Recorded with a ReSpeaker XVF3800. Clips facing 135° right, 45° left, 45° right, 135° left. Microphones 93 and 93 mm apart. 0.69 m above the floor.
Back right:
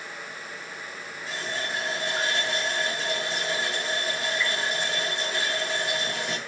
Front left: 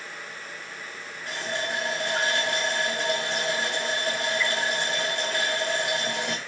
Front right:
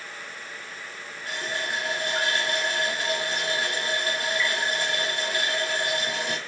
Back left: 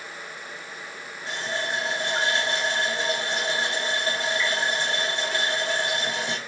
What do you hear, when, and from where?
1.3 s a running tap: 70° left, 3 m